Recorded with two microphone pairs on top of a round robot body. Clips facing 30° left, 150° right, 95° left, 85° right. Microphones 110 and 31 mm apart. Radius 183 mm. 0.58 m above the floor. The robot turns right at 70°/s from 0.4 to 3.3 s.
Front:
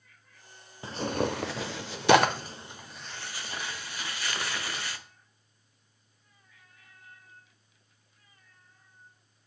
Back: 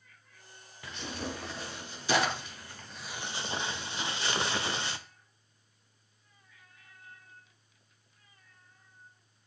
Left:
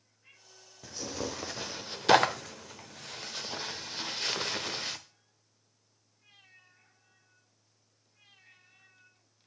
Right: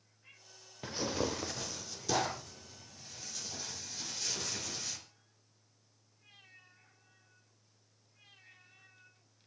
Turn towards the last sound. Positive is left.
turn(degrees=140)